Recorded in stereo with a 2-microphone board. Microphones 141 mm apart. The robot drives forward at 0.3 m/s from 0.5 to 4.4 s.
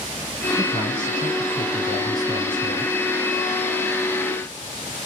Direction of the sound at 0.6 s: 35° left (ahead or behind).